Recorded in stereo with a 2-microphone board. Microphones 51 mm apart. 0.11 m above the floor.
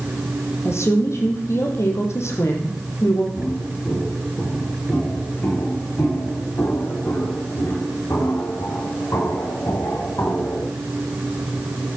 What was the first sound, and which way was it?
A woman speaking, 65° left (ahead or behind).